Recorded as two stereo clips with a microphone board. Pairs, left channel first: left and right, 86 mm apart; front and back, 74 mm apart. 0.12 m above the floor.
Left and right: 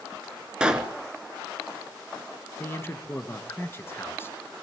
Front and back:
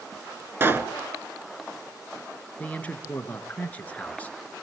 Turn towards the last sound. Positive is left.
turn(degrees=55)